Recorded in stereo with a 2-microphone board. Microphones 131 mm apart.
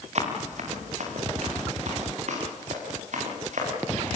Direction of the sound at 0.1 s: 60° right (ahead or behind).